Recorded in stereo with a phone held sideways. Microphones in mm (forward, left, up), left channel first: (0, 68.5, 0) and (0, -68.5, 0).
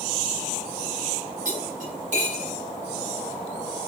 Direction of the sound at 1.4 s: 60° right (ahead or behind).